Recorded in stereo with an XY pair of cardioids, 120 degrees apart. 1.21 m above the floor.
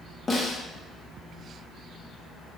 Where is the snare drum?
25° left, 0.6 m.